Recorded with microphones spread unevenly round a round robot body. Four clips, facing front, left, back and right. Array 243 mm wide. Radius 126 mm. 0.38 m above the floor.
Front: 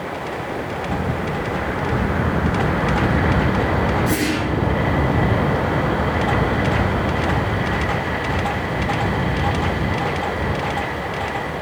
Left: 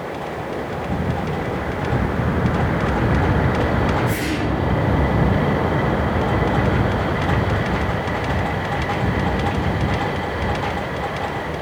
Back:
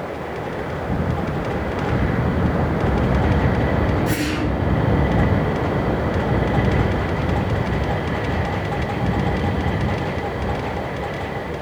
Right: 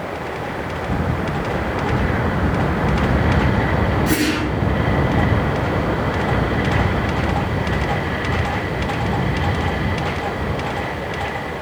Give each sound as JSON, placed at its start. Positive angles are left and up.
{"t": 4.1, "sound": "a whoosh", "azimuth_deg": -110, "distance_m": 2.5}